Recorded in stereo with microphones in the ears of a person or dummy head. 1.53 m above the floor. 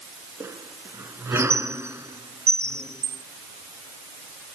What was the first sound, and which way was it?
A squeak, 10° right (ahead or behind).